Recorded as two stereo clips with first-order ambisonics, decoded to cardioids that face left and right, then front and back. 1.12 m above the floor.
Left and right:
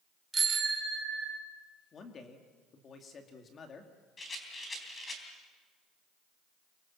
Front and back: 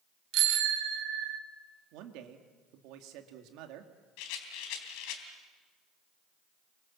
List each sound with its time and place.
0.3 s a bicycle bell: 165° right, 2.5 m; by 1.4 s 155° right, 1.5 m
1.9 s a man speaking: 155° left, 2.5 m
4.2 s a rattle: 15° left, 3.5 m